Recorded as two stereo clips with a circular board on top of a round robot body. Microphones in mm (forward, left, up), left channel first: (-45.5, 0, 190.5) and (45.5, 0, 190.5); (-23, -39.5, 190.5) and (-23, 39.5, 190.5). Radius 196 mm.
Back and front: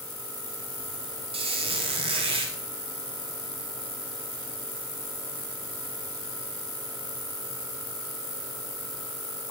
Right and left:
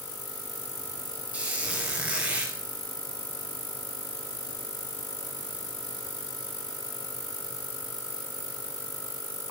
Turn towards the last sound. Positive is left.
turn(degrees=15)